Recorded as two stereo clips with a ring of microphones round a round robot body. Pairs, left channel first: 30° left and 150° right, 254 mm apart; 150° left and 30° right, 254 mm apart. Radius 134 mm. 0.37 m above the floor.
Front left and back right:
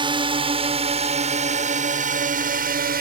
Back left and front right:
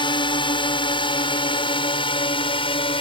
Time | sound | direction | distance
0.0 | a drone | straight behind | ?